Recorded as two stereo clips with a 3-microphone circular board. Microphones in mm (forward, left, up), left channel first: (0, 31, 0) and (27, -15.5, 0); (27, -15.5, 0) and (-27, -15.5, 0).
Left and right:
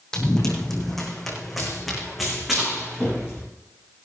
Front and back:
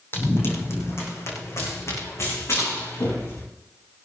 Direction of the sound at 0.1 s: 40° left.